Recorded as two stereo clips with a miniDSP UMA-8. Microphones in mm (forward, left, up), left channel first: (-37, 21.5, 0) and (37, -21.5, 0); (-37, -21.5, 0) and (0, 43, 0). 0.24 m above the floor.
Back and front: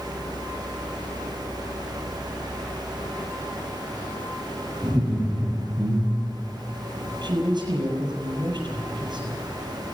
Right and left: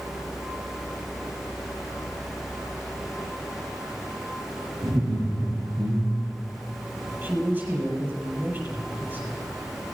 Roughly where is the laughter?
Ahead left.